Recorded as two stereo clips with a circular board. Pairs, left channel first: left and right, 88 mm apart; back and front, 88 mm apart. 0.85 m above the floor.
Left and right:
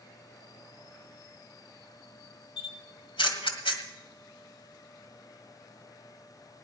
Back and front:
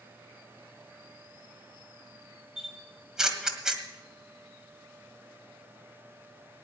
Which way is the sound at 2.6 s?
80° left.